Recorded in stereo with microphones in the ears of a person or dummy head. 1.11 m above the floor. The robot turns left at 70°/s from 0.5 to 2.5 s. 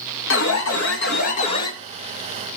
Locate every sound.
0.3 s an alarm: 110° left, 1.7 m; by 1.7 s 25° left, 1.7 m